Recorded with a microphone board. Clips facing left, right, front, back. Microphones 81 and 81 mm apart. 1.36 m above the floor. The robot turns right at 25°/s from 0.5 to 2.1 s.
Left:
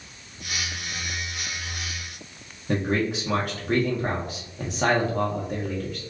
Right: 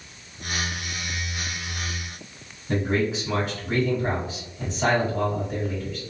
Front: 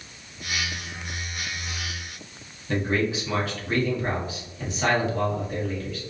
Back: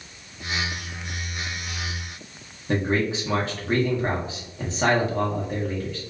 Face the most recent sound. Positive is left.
turn(degrees=120)